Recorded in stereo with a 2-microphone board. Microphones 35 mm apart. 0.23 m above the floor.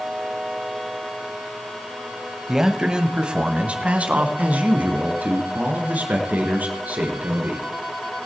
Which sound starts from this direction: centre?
A man speaking, at 2.5 s.